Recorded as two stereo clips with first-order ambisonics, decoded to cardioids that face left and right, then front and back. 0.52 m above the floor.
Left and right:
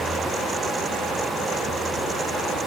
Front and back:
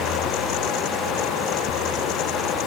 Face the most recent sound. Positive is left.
No sound to turn to.